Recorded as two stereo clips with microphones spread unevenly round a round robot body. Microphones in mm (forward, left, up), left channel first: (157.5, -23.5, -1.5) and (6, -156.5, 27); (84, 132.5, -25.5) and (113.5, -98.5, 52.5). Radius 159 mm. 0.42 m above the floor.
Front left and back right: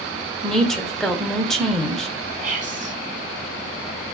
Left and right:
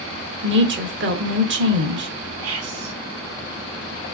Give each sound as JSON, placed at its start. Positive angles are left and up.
{"t": 0.4, "sound": "a woman speaking", "azimuth_deg": -40, "distance_m": 1.1}
{"t": 2.4, "sound": "whispering", "azimuth_deg": -95, "distance_m": 1.3}